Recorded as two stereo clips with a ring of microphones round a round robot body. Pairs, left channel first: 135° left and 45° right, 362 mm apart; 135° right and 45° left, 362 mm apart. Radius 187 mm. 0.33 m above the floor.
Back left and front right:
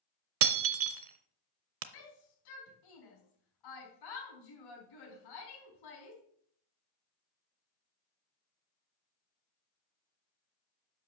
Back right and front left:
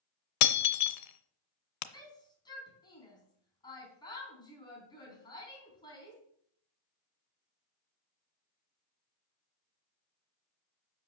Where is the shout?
145° left, 3.5 m.